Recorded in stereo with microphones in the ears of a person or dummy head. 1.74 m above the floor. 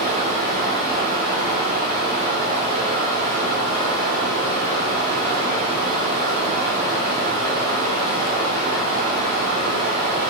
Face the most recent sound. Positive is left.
turn(degrees=-55)  # may be behind; listen again after turning